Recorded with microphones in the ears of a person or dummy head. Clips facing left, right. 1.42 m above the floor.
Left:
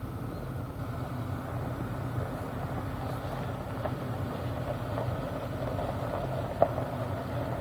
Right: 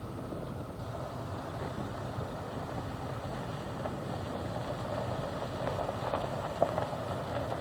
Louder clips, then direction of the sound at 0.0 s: Left 1 dB; 25° left (ahead or behind).